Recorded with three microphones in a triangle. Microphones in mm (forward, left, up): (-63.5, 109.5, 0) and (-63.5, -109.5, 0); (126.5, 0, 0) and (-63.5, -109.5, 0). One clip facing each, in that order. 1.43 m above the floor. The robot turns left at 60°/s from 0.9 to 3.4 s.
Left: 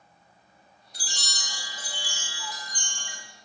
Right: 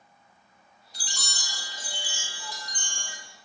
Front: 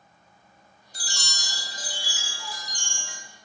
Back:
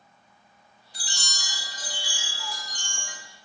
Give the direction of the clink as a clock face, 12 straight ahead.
I don't hear a clink.